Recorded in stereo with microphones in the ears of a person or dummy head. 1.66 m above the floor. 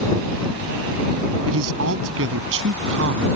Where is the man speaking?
80° right; by 3.3 s 70° right (ahead or behind).